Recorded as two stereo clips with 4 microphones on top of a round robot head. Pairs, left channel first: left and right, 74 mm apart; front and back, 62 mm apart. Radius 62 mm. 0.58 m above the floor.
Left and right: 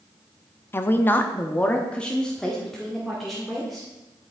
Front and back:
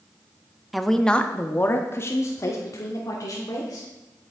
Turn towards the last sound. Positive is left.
turn(degrees=0)